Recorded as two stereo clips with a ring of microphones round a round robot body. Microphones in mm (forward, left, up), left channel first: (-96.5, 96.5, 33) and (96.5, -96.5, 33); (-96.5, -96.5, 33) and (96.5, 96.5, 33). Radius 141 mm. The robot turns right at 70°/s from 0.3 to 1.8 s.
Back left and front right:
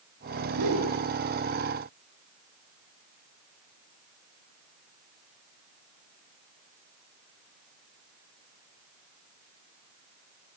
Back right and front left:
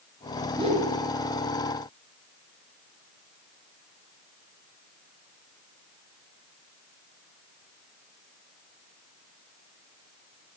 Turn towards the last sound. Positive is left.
turn(degrees=55)